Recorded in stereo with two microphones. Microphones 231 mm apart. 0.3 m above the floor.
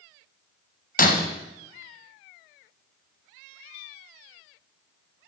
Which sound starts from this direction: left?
Breaking glass, at 1.0 s.